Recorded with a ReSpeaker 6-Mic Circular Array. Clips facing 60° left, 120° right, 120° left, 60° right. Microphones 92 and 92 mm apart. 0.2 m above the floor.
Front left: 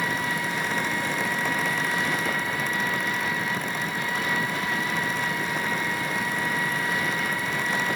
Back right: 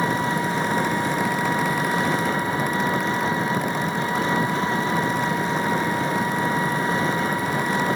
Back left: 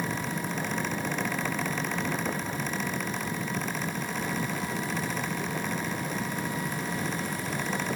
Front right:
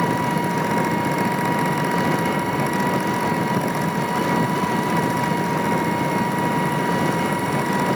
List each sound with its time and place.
0.0 s an engine running: 60° right